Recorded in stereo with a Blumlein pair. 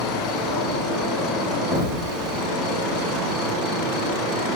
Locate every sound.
0.0 s an insect: 15° left, 1.2 m
1.7 s an explosion: 25° left, 2 m